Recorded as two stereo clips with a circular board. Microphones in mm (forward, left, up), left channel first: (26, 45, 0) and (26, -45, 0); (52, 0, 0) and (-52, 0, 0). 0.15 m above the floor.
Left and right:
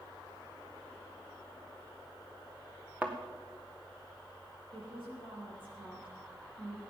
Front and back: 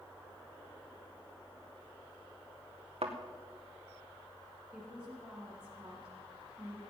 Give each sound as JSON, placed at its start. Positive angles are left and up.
{"t": 3.0, "sound": "a thud", "azimuth_deg": -160, "distance_m": 1.7}
{"t": 4.7, "sound": "a woman speaking", "azimuth_deg": -100, "distance_m": 5.5}